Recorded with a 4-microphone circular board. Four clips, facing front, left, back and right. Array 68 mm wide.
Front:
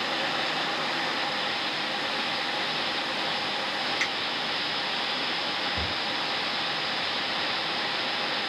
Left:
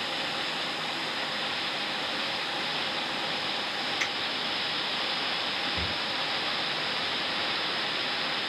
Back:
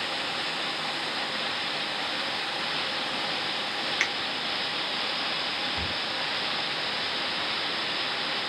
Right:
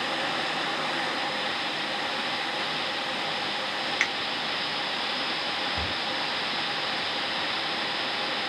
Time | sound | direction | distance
4.0 | a finger snap | 120° right | 0.7 m
5.8 | a cupboard door | 25° right | 0.6 m